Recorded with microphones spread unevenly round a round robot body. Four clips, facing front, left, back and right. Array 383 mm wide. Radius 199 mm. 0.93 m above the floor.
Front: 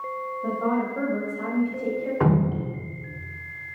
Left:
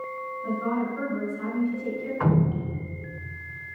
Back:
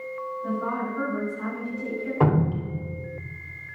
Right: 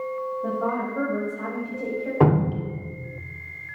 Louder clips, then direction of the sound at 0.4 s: Left 1 dB, front 4 dB; 55° right.